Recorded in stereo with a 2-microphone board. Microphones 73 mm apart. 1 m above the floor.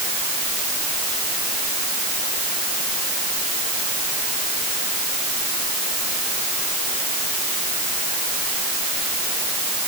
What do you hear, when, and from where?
Only background noise.